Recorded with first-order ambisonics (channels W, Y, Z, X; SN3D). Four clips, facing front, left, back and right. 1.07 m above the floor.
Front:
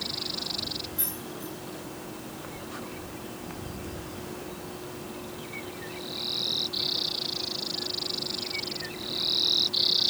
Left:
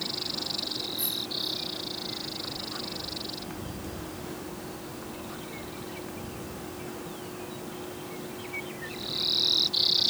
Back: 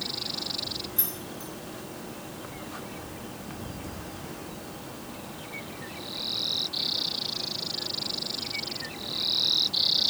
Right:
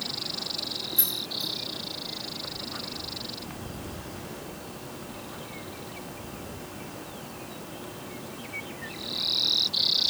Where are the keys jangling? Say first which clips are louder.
Right 1 dB, even; 115° right, 3.5 m.